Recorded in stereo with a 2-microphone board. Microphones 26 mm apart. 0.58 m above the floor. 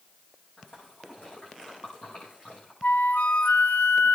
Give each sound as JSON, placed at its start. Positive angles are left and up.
{"t": 0.6, "sound": "a splash", "side_deg": 75, "distance_m": 8.0}
{"t": 2.8, "sound": "a flute", "side_deg": 70, "distance_m": 0.6}